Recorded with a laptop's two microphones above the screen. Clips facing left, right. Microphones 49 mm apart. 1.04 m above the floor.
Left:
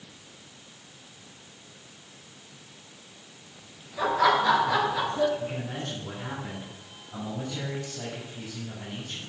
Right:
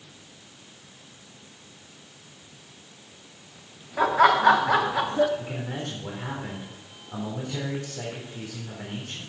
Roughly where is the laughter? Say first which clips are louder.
Right 4 dB; right.